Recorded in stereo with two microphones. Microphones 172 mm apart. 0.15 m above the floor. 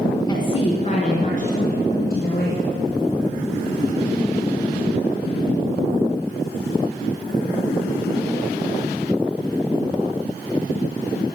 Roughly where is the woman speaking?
Left.